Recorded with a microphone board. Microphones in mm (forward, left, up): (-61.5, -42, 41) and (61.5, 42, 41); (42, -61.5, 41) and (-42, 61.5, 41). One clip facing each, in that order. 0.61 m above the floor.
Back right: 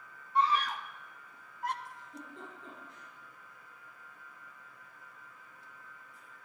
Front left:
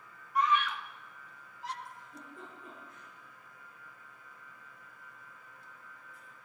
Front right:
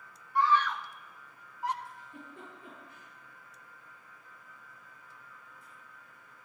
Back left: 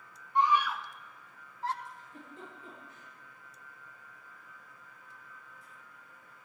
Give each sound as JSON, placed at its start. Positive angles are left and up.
{"t": 0.3, "sound": "a scream", "azimuth_deg": 175, "distance_m": 0.6}
{"t": 1.9, "sound": "a giggle", "azimuth_deg": -80, "distance_m": 8.0}